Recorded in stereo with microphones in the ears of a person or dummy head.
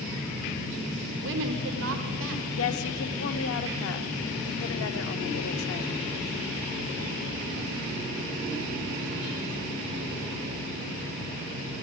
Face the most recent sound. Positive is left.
turn(degrees=70)  # may be behind; listen again after turning